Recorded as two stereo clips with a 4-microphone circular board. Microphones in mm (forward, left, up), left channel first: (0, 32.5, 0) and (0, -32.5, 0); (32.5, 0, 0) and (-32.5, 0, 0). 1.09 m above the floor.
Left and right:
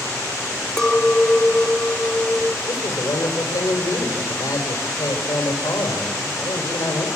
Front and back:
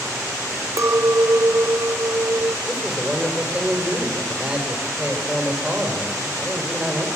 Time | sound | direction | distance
0.8 | a clink | 170° left | 0.5 m
2.7 | a man speaking | 110° left | 4 m